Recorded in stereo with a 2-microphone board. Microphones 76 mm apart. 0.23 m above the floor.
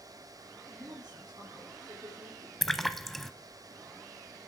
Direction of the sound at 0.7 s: 50° right (ahead or behind).